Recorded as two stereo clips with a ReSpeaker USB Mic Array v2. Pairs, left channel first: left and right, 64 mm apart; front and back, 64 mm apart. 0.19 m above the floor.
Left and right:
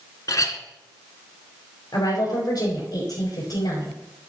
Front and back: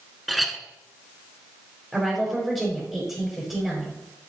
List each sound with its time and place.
0.3 s a clink: 90° left, 1.1 m
1.9 s a woman speaking: 90° left, 5 m